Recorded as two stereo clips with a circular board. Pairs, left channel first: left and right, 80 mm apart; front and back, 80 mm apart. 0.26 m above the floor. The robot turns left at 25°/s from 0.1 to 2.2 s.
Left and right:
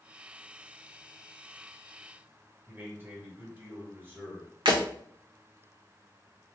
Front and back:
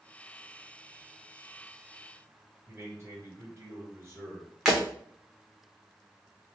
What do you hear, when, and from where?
2.7 s a man speaking: 130° right, 1.8 m
4.7 s breaking glass: 100° right, 1.5 m